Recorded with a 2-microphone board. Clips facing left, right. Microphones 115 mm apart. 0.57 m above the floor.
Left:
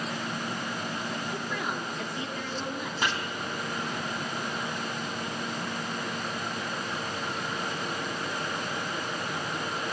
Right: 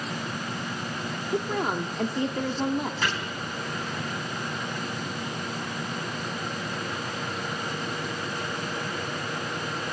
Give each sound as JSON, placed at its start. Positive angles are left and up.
{"t": 1.3, "sound": "a woman speaking", "side_deg": -45, "distance_m": 1.1}
{"t": 3.0, "sound": "chopping", "side_deg": 20, "distance_m": 5.0}